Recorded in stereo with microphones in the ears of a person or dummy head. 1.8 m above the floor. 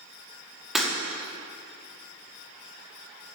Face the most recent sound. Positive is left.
turn(degrees=0)  # may be behind; listen again after turning